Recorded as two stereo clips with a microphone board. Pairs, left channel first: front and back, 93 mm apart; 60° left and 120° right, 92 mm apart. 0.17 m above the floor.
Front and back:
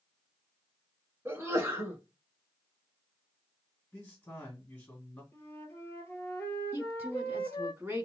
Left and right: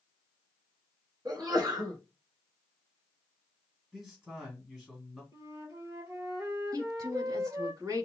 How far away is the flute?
About 0.9 m.